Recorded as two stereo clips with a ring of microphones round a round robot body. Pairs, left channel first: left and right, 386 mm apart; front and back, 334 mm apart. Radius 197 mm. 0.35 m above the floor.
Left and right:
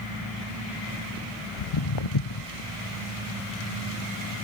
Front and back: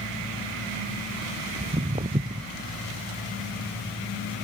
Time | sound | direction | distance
1.6 | footsteps | 110° left | 0.5 m